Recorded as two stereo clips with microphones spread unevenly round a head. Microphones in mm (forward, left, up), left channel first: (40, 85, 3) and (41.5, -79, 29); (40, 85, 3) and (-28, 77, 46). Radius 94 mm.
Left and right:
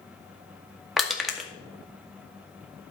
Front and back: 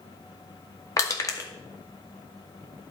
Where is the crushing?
Straight ahead, 2.0 m.